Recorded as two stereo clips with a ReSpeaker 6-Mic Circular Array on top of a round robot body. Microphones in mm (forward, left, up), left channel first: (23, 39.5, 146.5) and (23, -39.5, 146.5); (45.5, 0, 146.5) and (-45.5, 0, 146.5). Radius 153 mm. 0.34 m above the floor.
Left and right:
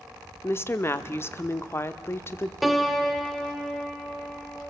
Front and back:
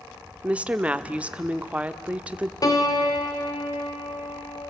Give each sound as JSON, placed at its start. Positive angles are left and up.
{"t": 0.4, "sound": "a woman speaking", "azimuth_deg": 115, "distance_m": 0.9}
{"t": 2.6, "sound": "a piano", "azimuth_deg": 0, "distance_m": 1.8}